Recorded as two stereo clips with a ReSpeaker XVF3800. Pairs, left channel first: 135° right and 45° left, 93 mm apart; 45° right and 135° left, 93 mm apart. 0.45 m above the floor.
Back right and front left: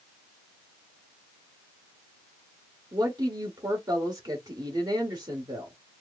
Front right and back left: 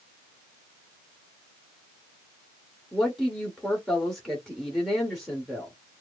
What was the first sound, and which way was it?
A woman speaking, 45° left.